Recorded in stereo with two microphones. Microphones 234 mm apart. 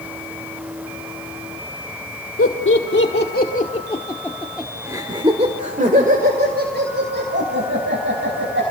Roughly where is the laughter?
Left.